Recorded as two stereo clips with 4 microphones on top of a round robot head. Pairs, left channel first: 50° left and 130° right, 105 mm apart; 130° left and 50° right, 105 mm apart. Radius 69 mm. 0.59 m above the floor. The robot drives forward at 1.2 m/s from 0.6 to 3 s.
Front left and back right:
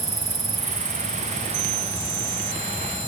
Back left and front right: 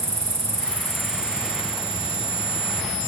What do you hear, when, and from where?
0.0 s an insect: 145° right, 0.8 m; by 3.1 s 175° right, 3.5 m